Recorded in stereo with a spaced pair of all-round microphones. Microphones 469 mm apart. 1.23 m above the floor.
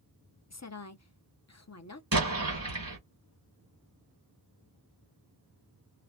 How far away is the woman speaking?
About 0.6 m.